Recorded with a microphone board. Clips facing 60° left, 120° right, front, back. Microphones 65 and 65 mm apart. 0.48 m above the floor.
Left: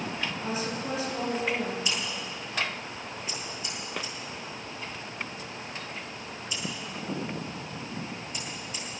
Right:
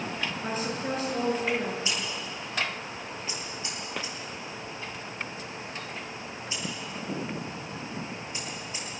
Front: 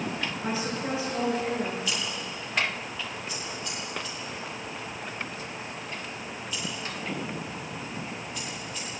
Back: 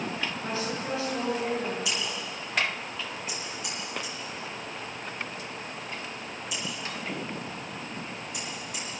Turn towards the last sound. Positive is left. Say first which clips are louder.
# even, even
turn(degrees=175)